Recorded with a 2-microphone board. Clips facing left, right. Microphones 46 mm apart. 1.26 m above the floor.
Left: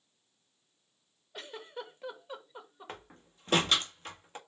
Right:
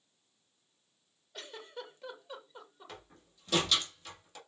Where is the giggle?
20° left (ahead or behind), 2 m.